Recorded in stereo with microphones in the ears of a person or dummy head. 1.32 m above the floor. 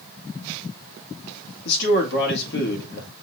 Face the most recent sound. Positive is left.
turn(degrees=65)  # may be behind; listen again after turning